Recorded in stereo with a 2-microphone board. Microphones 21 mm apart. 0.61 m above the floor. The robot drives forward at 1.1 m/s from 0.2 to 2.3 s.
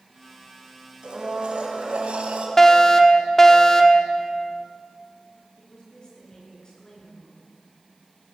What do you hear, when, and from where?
1.0 s a blender: 50° right (ahead or behind), 4.5 m; by 2.5 s 70° right (ahead or behind), 3.5 m
2.6 s a fire alarm: 20° left (ahead or behind), 2 m
5.6 s a woman speaking: 35° left (ahead or behind), 8 m